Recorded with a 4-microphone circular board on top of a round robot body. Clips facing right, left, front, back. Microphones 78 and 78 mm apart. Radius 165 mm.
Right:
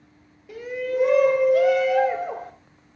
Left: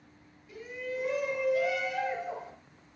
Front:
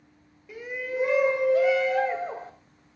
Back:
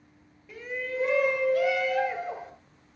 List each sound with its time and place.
0.5 s a shout: 85° right, 2.5 m; by 2.5 s 55° right, 4 m